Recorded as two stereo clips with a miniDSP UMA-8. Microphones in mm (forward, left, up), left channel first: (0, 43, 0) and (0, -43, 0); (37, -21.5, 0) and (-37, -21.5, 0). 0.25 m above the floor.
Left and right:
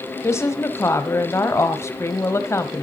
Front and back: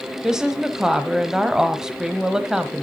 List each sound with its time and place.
0.2 s a woman speaking: 105° left, 1.0 m